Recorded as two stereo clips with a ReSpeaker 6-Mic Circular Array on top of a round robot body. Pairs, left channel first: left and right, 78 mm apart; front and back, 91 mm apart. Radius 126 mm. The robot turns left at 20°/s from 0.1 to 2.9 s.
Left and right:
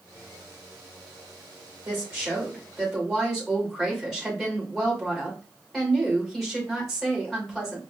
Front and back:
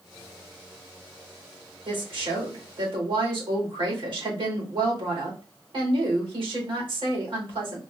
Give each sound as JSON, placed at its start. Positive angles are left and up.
{"t": 1.9, "sound": "a woman speaking", "azimuth_deg": -155, "distance_m": 2.5}